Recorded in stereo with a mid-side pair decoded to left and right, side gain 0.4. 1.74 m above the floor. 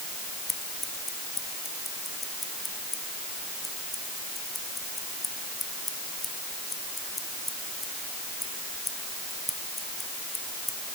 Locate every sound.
0.5 s scissors: 25° left